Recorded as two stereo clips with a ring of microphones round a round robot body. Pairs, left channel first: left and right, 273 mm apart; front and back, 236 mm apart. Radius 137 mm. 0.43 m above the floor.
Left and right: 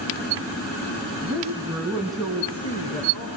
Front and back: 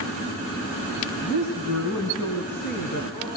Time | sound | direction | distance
1.2 | a woman speaking | 15° right | 4.5 m